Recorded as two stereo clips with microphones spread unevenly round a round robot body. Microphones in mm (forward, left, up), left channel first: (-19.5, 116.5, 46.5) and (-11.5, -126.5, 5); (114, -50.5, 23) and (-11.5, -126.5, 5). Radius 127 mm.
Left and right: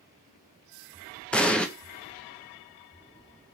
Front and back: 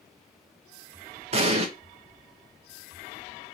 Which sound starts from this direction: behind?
An explosion, at 1.3 s.